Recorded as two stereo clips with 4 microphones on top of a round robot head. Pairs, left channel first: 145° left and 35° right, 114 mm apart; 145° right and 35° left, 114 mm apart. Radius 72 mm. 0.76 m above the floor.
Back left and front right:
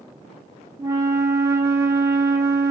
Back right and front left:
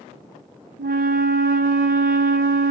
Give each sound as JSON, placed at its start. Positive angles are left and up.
{"t": 0.8, "sound": "a flute", "azimuth_deg": 30, "distance_m": 0.6}